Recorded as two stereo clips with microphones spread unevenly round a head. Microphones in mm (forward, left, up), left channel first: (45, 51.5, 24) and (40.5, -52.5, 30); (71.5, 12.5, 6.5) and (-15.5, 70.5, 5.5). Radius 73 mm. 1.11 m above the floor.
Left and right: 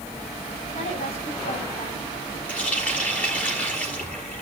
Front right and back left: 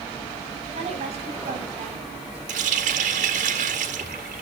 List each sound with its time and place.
0.7 s a woman speaking: 125° left, 8.5 m; by 2.4 s 120° left, 10.5 m
2.5 s a running tap: 170° left, 1.5 m